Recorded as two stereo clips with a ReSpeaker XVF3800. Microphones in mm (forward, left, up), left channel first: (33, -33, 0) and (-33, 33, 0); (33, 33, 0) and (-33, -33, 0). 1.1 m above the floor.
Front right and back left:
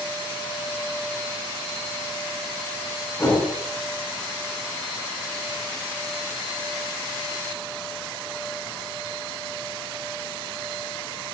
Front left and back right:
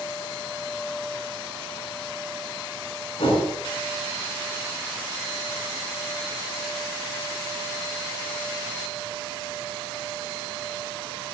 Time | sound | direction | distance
3.2 | a whoosh | 20° left | 6.5 m